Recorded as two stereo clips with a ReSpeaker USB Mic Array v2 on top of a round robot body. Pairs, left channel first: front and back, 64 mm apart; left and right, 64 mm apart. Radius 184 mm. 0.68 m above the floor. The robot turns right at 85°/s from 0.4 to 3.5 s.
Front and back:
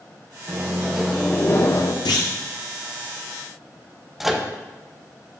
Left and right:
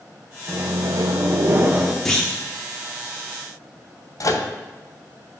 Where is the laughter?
No laughter in this recording.